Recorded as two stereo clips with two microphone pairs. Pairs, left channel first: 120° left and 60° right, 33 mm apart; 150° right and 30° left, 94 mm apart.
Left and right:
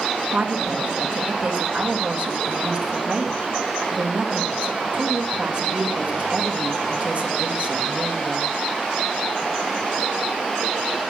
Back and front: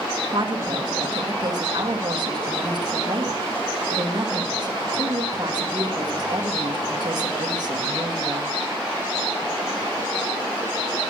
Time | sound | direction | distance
0.3 | a woman speaking | 15° right | 1.6 m